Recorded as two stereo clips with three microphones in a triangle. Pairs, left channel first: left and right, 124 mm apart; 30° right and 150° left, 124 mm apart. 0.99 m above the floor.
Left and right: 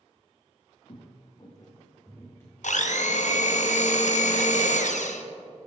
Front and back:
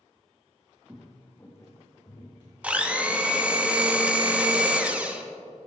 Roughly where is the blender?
Left.